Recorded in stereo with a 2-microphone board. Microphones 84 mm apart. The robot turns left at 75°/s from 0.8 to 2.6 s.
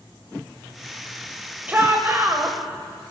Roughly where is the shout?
Centre.